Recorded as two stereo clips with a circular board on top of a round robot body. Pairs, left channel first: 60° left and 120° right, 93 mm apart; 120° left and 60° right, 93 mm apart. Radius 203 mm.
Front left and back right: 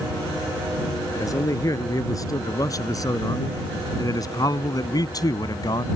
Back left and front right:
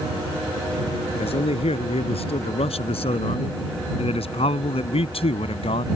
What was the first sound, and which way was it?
A man speaking, 115° left.